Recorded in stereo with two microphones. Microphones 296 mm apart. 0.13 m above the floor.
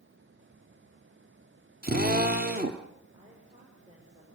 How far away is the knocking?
I don't hear knocking.